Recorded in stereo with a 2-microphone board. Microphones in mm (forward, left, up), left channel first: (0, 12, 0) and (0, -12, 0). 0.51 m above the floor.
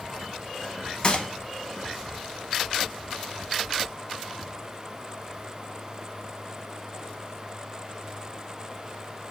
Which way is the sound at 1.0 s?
40° left (ahead or behind).